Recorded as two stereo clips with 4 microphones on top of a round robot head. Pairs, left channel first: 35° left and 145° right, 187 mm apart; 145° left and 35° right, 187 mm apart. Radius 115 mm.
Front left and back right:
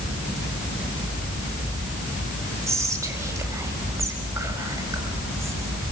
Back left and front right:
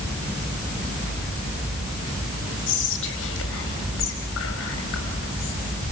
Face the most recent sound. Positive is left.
turn(degrees=145)